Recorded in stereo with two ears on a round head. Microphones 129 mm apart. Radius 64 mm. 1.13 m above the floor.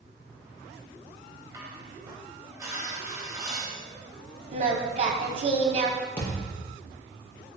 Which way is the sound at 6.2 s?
10° left (ahead or behind).